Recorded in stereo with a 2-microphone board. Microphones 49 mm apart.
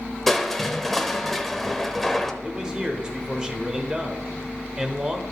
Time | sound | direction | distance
0.3 | crushing | 5° left (ahead or behind) | 0.7 m
2.4 | a man speaking | 15° right (ahead or behind) | 0.9 m